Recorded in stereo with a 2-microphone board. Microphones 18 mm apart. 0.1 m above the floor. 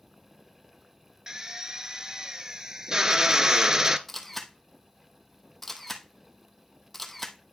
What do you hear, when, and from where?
1.3 s a drill: 30° right (ahead or behind), 0.6 m
4.1 s a camera shutter: 15° left (ahead or behind), 1.0 m